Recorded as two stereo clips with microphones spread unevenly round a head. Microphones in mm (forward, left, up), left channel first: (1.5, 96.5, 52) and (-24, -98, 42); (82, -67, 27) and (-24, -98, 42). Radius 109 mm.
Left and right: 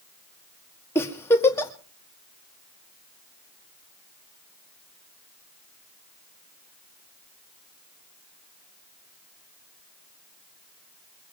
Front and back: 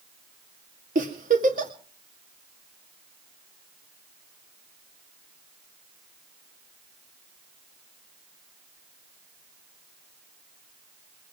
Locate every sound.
0.9 s a giggle: 160° left, 2 m